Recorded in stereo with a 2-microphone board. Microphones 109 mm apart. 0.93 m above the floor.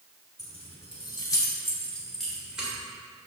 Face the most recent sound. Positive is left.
turn(degrees=-10)  # may be behind; listen again after turning